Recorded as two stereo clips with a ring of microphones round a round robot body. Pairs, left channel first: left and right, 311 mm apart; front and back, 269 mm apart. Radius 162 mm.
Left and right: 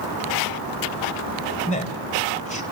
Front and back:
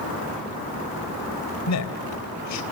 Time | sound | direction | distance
1.7 | a man speaking | 20° left | 3.5 m